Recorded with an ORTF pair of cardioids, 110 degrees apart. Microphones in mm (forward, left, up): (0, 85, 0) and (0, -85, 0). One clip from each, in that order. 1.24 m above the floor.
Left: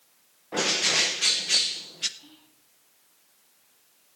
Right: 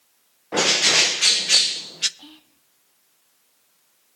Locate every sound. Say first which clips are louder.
0.5 s a bird: right 6 dB; 30° right, 0.5 m
2.2 s whispering: right 7 dB; 60° right, 2 m